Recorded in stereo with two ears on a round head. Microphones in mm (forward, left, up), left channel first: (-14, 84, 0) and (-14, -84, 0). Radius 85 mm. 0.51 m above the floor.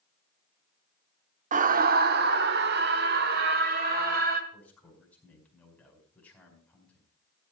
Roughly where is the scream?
Right.